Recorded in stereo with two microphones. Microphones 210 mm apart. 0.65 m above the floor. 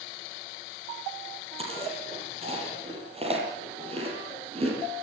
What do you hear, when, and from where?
1.6 s chewing: 30° right (ahead or behind), 8.5 m